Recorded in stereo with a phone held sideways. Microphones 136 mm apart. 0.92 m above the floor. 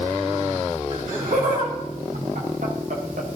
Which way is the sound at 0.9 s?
70° right (ahead or behind).